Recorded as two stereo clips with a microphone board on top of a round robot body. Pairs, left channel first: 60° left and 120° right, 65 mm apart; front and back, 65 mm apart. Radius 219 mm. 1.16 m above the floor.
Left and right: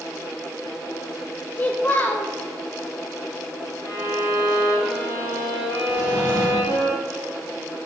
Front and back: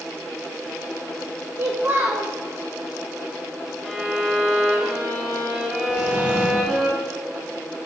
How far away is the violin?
About 2 m.